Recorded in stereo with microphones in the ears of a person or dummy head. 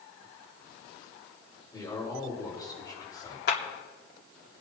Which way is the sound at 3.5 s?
60° left (ahead or behind).